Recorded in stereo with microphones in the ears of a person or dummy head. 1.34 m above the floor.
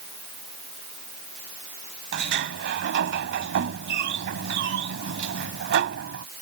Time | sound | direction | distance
2.1 | a sliding door | 60° right (ahead or behind) | ?